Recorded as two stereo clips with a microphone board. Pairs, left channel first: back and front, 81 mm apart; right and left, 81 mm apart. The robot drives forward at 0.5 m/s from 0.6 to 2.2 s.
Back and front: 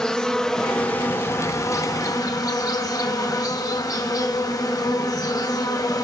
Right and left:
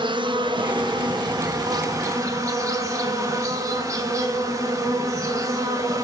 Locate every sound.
0.0 s an insect: 100° left, 0.9 m; by 6.0 s 135° left, 1.3 m